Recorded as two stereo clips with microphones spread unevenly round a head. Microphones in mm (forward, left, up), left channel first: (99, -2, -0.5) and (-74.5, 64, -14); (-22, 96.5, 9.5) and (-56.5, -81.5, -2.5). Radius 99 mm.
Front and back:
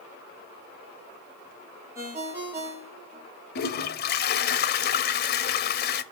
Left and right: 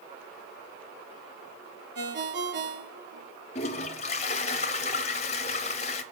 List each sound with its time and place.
1.9 s a ringtone: 125° right, 1.9 m
3.5 s a toilet flushing: 20° left, 0.7 m